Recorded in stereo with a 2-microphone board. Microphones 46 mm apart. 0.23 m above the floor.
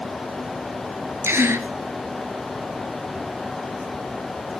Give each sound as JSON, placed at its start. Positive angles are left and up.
{"t": 1.2, "sound": "a gasp", "side_deg": -65, "distance_m": 1.2}